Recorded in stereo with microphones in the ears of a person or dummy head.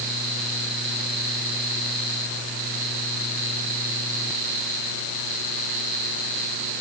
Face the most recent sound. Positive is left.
No sound to turn to.